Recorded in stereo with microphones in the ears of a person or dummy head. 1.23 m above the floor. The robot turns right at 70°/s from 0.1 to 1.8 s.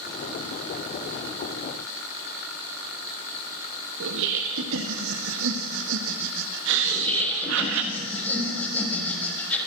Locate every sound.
4.0 s laughter: 70° right (ahead or behind), 1.5 m
6.8 s laughter: 10° left (ahead or behind), 6.5 m